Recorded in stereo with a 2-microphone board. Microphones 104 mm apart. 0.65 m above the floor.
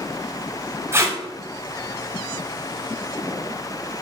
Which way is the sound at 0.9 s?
25° right (ahead or behind).